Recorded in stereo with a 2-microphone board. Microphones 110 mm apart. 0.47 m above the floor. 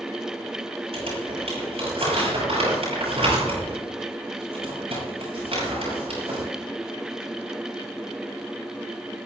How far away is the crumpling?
About 8 m.